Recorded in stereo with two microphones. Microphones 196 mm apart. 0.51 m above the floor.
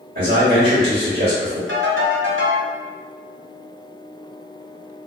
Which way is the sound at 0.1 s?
55° right (ahead or behind).